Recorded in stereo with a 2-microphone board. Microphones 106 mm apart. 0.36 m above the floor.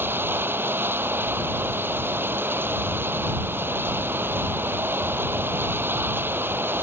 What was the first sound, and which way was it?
Running water, 20° right (ahead or behind).